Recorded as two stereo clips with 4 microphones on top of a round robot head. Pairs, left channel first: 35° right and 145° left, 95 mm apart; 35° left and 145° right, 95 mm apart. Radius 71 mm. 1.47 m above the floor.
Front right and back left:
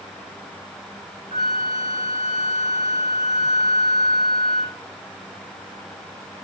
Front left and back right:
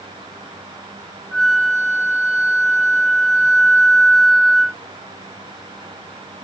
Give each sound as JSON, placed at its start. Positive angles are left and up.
{"t": 1.3, "sound": "a flute", "azimuth_deg": 125, "distance_m": 0.9}